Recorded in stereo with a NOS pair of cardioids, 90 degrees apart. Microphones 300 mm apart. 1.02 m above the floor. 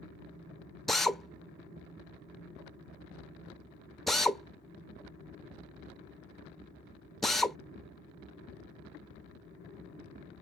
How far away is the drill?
About 0.5 m.